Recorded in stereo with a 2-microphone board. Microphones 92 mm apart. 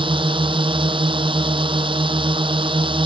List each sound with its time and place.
0.0 s a drone: 65° right (ahead or behind)